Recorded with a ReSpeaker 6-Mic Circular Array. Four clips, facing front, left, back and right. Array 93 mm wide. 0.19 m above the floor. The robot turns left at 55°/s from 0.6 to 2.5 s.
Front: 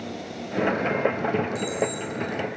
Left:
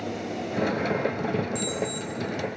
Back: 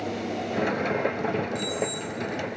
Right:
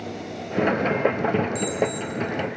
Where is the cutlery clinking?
No cutlery clinking in this recording.